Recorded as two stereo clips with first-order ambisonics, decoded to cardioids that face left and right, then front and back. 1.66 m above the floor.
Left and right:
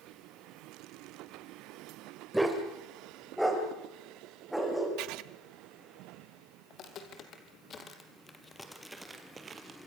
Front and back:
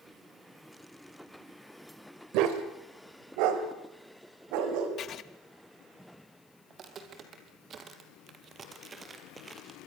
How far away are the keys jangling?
No keys jangling in this recording.